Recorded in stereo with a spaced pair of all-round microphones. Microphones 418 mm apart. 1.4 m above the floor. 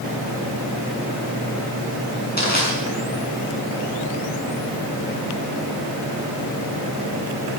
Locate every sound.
2.4 s crushing: 20° left (ahead or behind), 7 m